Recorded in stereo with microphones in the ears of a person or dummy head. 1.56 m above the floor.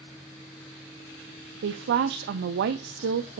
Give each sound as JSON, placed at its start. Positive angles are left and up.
{"t": 1.6, "sound": "a woman speaking", "side_deg": -55, "distance_m": 0.5}